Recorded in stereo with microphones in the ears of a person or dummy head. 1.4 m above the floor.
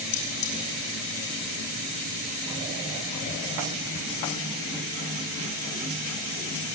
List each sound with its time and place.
0.1 s cutlery clinking: 65° left (ahead or behind), 6.5 m